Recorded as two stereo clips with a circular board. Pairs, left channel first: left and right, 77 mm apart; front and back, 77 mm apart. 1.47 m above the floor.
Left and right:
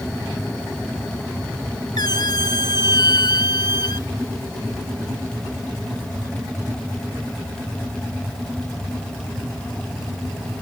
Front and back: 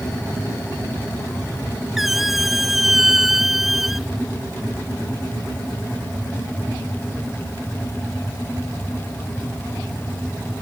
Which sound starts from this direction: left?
A squeak, at 2.0 s.